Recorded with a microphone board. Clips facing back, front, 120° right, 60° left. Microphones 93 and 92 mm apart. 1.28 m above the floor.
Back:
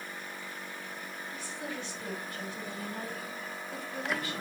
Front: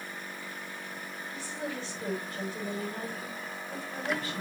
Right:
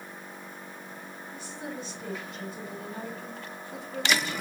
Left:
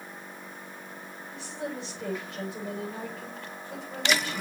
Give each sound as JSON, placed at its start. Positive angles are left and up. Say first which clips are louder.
{"t": 1.3, "sound": "a woman speaking", "louder": "front 3 dB, left 3 dB", "azimuth_deg": 60, "distance_m": 7.0}